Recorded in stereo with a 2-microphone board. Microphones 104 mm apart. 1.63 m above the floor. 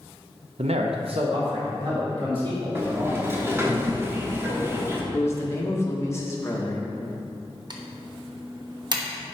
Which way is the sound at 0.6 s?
80° right.